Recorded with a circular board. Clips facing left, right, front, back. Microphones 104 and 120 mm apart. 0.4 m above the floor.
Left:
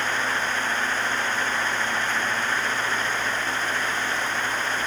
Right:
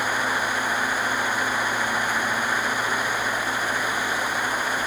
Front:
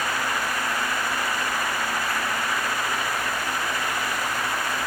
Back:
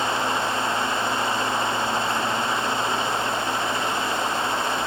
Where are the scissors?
No scissors in this recording.